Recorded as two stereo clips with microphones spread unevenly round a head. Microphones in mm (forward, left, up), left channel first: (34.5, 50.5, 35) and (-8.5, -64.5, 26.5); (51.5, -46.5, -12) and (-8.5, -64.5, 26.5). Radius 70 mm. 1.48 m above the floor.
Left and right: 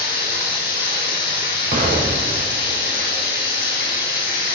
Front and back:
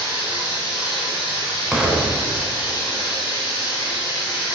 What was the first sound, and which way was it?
Running water, 85° left.